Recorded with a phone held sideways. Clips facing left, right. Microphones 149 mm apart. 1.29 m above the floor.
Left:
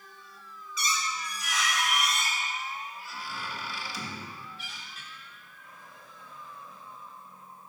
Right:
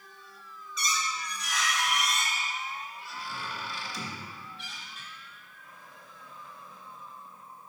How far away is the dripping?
I don't hear dripping.